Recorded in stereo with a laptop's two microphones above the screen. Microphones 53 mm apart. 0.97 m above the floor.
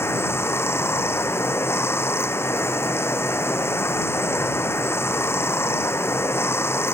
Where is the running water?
50° left (ahead or behind).